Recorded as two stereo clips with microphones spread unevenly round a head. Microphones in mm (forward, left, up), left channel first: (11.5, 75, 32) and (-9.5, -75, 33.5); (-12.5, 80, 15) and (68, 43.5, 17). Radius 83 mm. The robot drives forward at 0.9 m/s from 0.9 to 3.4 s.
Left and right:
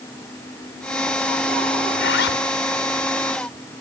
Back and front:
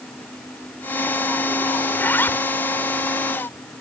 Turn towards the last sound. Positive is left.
turn(degrees=100)